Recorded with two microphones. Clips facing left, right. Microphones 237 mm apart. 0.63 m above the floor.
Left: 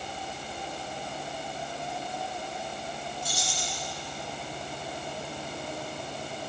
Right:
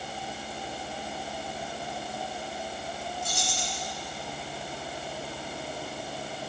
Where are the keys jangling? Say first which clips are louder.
Right 1 dB; 55° right (ahead or behind), 3 m.